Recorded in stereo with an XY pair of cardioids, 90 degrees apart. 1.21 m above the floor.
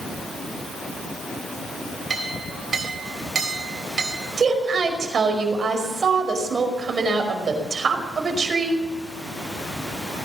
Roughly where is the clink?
Ahead right.